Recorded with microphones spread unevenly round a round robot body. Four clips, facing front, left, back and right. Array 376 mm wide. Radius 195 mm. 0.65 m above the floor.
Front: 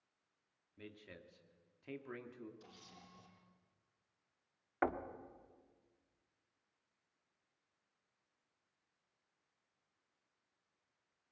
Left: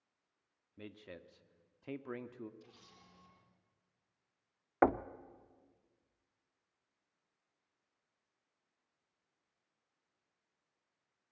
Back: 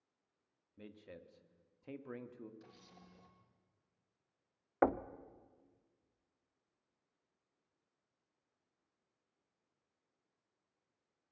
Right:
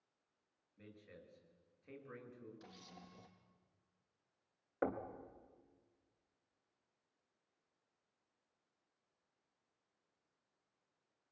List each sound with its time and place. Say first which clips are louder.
0.8 s a man speaking: left 8 dB, back 1 dB; 90° left, 1.5 m
2.6 s a camera shutter: right 3 dB, even; 80° right, 4 m
4.8 s knocking: left 10 dB, back 5 dB; 90° left, 0.8 m